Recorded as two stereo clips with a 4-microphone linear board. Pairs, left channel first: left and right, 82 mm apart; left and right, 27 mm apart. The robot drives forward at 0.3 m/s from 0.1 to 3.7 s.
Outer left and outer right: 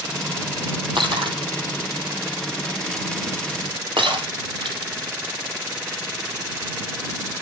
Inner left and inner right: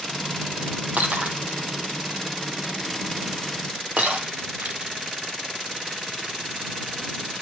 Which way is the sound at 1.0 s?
75° right (ahead or behind).